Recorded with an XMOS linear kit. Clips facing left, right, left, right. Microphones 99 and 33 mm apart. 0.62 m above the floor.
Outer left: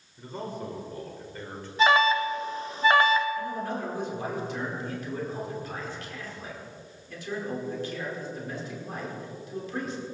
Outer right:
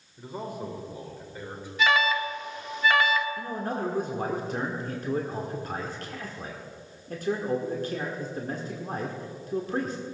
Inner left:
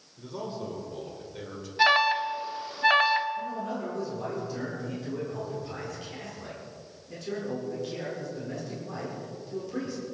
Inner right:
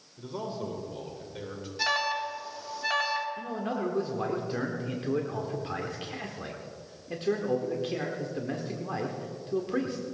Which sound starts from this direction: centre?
A man speaking, at 0.2 s.